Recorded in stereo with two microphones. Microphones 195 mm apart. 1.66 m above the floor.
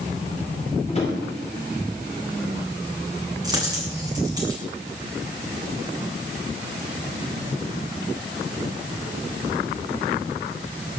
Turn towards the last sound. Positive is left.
turn(degrees=-20)  # may be behind; listen again after turning